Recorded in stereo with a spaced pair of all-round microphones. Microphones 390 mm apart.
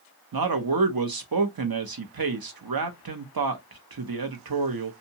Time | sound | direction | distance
0.3 | a man speaking | 65° right (ahead or behind) | 0.7 m